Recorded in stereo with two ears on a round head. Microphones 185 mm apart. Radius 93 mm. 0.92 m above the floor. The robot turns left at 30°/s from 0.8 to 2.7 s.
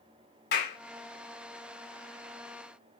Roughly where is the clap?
Left.